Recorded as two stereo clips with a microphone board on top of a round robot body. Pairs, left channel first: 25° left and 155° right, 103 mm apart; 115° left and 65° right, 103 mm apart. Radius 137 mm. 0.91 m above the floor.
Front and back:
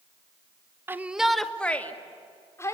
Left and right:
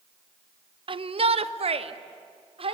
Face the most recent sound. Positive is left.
turn(degrees=-40)